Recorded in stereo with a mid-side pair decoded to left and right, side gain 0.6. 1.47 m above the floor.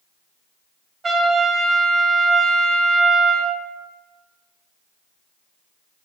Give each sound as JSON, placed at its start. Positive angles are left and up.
{"t": 1.0, "sound": "a trumpet", "azimuth_deg": -35, "distance_m": 0.6}